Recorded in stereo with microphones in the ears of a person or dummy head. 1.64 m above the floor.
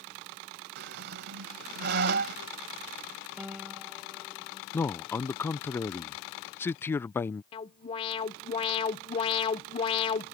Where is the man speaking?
10° left (ahead or behind).